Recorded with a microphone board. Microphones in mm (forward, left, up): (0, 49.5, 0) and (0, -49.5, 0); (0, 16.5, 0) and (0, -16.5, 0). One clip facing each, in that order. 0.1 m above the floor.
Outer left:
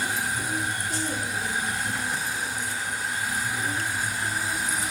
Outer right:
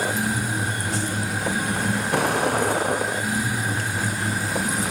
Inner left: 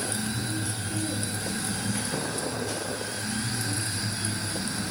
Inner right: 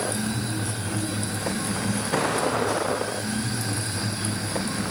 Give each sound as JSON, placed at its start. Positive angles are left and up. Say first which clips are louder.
{"t": 0.0, "sound": "a vehicle", "louder": "outer right 4 dB, inner right 4 dB", "side_deg": -70}